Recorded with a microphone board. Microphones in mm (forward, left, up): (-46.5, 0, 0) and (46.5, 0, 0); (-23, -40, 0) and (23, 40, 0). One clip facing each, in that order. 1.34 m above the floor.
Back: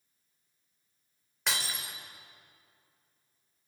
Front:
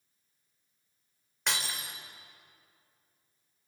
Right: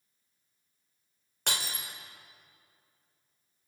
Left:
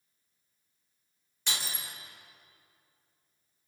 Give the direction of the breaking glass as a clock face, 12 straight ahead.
3 o'clock.